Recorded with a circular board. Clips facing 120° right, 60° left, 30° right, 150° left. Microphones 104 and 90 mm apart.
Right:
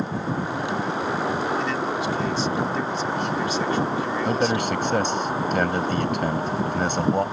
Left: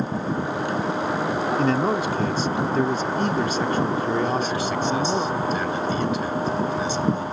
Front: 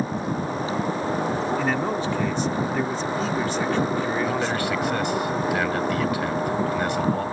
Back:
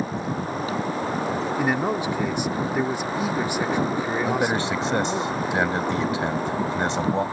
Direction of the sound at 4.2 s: 145° right.